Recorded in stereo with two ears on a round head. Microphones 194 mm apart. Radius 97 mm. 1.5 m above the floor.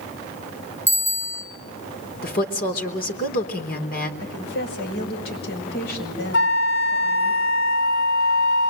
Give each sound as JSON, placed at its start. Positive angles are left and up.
{"t": 0.9, "sound": "a bicycle bell", "side_deg": -10, "distance_m": 6.0}
{"t": 2.2, "sound": "a woman speaking", "side_deg": 40, "distance_m": 4.0}
{"t": 4.2, "sound": "a woman speaking", "side_deg": 45, "distance_m": 7.5}
{"t": 6.3, "sound": "a flute", "side_deg": 55, "distance_m": 2.0}